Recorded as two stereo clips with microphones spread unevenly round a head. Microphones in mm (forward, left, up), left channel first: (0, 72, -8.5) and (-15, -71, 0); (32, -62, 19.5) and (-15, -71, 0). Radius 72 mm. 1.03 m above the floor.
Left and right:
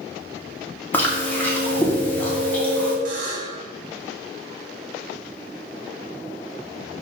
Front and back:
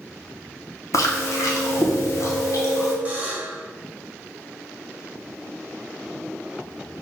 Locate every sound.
0.9 s chewing: 15° left, 0.8 m
3.0 s a buzzer: 95° right, 1.2 m